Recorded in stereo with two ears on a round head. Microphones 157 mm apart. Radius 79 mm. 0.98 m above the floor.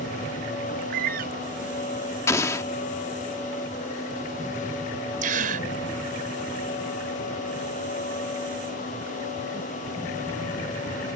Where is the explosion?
15° left (ahead or behind).